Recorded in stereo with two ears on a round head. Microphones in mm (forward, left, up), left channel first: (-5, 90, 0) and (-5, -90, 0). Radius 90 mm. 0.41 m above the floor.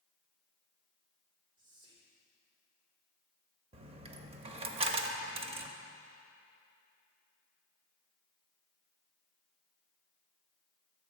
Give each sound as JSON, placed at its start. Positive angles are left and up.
{"t": 1.6, "sound": "whispering", "side_deg": -20, "distance_m": 1.1}
{"t": 3.7, "sound": "a dropped coin", "side_deg": -30, "distance_m": 0.6}